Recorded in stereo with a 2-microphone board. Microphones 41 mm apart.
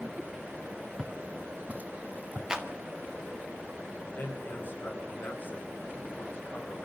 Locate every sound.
1.0 s footsteps: 20° right (ahead or behind), 1.6 m; by 2.4 s 45° right (ahead or behind), 2.5 m
2.5 s a clap: 15° right (ahead or behind), 1.7 m
4.1 s a man speaking: 45° left (ahead or behind), 5.5 m